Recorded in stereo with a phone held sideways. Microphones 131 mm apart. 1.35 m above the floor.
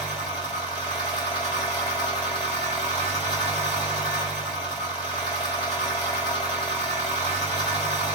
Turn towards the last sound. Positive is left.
turn(degrees=50)  # may be behind; listen again after turning